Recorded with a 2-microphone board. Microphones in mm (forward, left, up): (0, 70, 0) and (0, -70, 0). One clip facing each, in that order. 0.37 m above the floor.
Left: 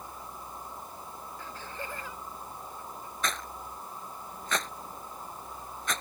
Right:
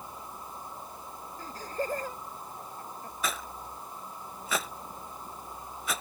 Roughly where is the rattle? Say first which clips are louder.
Even; centre.